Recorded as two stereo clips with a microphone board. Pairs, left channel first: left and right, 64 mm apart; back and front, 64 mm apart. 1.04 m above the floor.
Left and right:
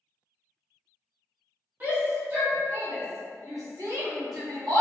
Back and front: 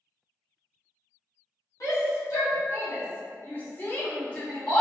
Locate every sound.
1.8 s a shout: 150° right, 2.0 m; by 4.8 s 100° right, 1.3 m